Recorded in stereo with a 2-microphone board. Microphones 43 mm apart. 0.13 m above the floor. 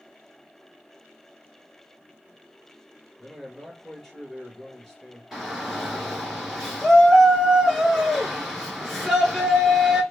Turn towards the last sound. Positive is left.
turn(degrees=0)  # may be behind; listen again after turning